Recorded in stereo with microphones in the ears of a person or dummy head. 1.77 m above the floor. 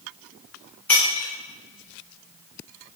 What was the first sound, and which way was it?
Breaking glass, 10° left (ahead or behind).